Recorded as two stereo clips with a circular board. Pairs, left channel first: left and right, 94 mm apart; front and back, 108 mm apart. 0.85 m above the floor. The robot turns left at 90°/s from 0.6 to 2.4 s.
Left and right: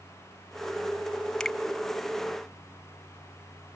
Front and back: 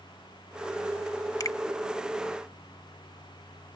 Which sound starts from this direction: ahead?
A finger snap, at 1.4 s.